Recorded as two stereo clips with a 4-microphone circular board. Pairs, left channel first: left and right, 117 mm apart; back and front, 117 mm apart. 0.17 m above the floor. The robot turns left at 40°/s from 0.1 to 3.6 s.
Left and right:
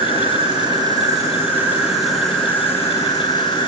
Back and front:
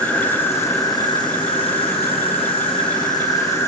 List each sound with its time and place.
0.0 s an insect: 100° right, 2.5 m; by 3.7 s 120° left, 2.5 m